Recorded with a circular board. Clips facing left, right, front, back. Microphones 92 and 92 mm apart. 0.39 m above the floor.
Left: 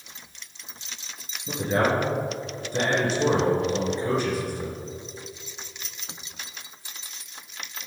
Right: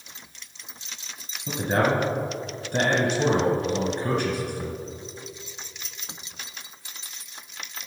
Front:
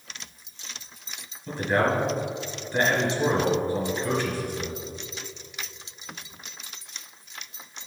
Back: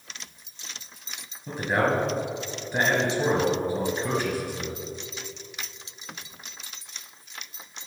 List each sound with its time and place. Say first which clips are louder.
1.5 s a man speaking: even, front 1 dB; 110° right, 3 m